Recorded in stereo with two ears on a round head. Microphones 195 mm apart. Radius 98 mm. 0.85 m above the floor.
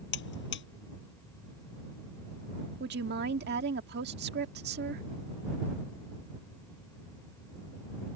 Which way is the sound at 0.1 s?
60° left (ahead or behind).